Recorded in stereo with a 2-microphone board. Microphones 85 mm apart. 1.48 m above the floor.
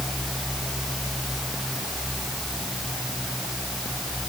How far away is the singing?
I don't hear singing.